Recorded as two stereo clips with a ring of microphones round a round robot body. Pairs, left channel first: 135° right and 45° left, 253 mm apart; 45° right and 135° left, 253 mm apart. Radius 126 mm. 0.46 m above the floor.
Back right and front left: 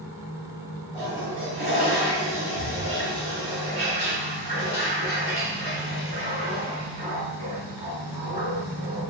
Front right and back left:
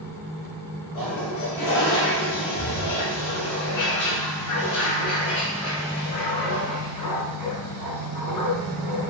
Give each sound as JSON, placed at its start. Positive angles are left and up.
{"t": 0.9, "sound": "a toilet flushing", "azimuth_deg": -25, "distance_m": 2.0}